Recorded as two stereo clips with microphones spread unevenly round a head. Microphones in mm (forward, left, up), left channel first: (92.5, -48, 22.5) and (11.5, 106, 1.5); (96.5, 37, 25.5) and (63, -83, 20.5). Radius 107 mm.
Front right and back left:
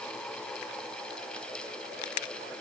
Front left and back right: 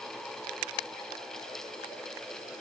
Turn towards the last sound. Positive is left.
No sound to turn to.